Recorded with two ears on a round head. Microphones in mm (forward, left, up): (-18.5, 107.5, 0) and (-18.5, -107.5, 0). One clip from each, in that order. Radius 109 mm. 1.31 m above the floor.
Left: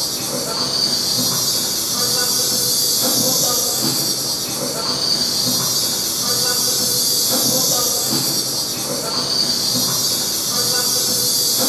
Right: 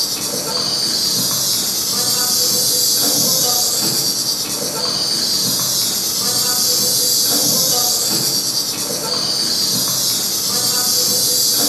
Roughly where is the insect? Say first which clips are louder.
Right 2 dB; right.